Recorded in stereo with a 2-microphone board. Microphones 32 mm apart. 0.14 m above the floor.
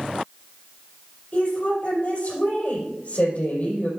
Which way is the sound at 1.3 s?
55° left (ahead or behind).